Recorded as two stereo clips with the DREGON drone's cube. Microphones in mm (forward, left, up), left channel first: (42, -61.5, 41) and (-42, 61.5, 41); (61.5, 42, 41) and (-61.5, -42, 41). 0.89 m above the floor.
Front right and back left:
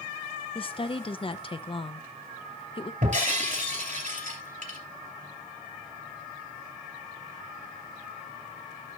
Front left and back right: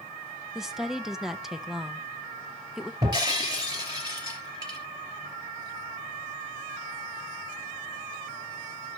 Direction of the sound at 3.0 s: 155° left.